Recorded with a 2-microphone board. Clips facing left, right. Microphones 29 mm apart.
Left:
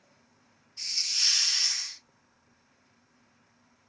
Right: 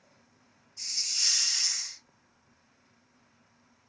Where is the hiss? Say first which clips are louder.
Left 3 dB; 45° left (ahead or behind), 1.0 m.